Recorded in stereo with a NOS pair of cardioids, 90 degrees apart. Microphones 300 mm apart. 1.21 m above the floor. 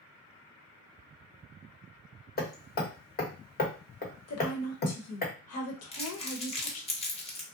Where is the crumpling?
20° left, 1.0 m.